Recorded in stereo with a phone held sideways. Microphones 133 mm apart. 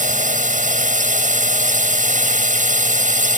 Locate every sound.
0.0 s a drone: 75° right (ahead or behind)